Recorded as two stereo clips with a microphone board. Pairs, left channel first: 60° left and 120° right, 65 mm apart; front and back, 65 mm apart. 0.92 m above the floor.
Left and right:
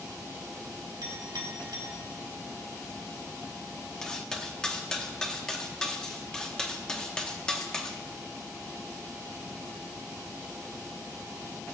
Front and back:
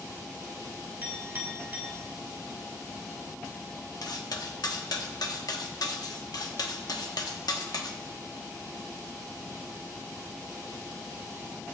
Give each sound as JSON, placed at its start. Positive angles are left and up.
{"t": 1.0, "sound": "a clink", "azimuth_deg": -120, "distance_m": 2.5}
{"t": 4.0, "sound": "cutlery clinking", "azimuth_deg": -20, "distance_m": 0.9}